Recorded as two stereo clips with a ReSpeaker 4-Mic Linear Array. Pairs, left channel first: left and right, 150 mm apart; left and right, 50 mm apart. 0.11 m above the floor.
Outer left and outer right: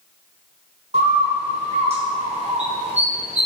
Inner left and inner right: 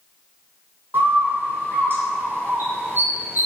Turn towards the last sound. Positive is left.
turn(degrees=-45)  # may be behind; listen again after turning